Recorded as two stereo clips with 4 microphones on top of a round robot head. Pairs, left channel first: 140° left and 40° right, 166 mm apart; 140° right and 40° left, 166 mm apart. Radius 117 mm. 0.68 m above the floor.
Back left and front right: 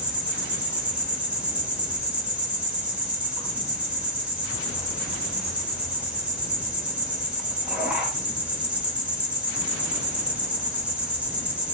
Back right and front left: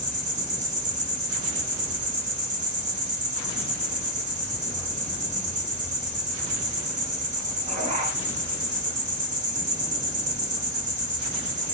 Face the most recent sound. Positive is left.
turn(degrees=40)